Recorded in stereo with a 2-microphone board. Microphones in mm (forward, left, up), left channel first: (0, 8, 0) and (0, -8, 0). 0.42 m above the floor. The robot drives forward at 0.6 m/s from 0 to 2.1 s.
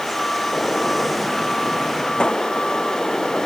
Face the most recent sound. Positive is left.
turn(degrees=85)